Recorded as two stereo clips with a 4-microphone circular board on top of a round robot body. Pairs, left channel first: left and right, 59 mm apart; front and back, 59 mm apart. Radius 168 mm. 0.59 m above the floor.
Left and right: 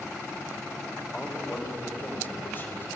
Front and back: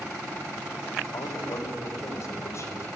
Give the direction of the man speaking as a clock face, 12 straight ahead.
11 o'clock.